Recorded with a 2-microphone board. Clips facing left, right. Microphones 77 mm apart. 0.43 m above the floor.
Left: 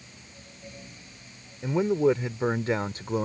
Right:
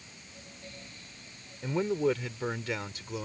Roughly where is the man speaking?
Centre.